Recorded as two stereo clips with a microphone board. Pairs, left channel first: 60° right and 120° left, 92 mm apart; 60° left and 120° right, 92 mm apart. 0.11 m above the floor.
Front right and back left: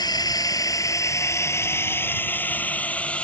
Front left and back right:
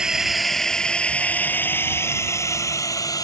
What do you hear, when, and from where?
0.0 s a drone: 40° right; by 3.2 s 15° left